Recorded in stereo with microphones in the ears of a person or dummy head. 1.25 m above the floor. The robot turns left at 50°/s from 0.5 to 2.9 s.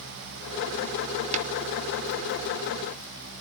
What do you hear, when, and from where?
1.3 s tapping: 30° right (ahead or behind), 0.8 m; by 1.5 s 40° right (ahead or behind), 0.8 m